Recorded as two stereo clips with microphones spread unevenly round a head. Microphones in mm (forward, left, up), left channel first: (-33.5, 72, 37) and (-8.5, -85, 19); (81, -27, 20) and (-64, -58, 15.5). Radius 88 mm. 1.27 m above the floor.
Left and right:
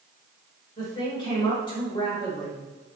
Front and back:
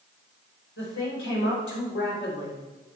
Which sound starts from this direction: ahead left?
A woman speaking, at 0.8 s.